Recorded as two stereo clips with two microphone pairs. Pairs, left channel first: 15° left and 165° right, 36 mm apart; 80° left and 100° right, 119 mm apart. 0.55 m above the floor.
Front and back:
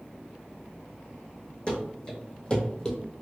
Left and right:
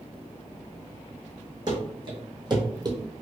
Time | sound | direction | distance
1.7 | running footsteps | 50° right | 2.0 m